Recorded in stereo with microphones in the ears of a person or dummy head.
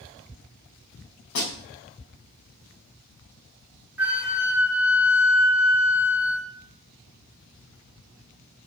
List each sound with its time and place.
1.4 s a snare drum: 55° left (ahead or behind), 3 m
4.0 s a flute: 10° right (ahead or behind), 1.0 m